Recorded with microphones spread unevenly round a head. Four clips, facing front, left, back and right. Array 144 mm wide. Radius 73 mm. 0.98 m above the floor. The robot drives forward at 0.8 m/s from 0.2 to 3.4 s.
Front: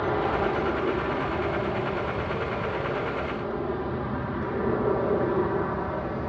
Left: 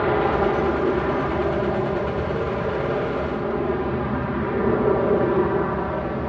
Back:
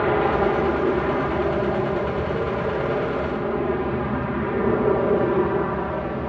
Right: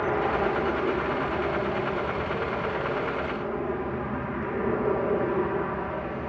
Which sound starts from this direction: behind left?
An aircraft, at 0.0 s.